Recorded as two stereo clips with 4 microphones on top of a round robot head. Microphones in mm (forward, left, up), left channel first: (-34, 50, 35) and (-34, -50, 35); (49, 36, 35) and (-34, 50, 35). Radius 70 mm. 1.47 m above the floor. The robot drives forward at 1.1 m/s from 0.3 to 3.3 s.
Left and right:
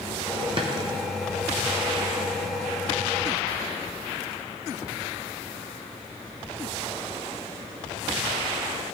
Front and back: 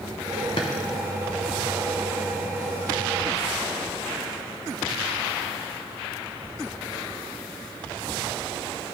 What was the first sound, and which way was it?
A drawer, 45° right.